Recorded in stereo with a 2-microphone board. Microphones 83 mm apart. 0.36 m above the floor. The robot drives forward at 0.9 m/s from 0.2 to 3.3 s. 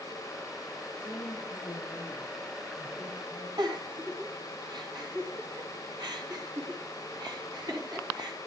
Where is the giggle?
55° right (ahead or behind), 3.5 m.